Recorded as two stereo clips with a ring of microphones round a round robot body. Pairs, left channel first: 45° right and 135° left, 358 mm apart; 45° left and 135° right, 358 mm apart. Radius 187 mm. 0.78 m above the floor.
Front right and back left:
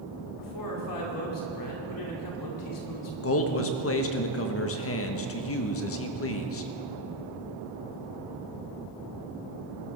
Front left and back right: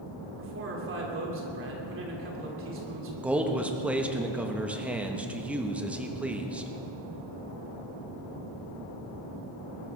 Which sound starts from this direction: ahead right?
A man speaking, at 3.2 s.